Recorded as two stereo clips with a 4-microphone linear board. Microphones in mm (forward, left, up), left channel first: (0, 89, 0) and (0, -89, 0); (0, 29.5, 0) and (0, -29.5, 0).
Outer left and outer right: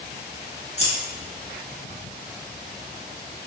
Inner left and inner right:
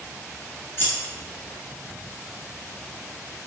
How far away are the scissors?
About 1.4 m.